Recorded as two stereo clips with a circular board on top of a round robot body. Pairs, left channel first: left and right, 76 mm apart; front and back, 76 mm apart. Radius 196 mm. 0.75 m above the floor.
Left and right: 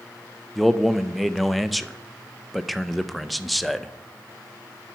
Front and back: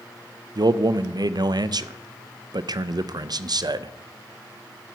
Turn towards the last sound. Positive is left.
turn(degrees=180)